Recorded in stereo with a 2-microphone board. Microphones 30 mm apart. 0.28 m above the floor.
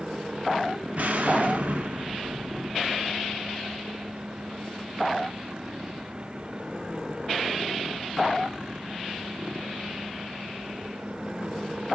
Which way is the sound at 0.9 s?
55° right (ahead or behind).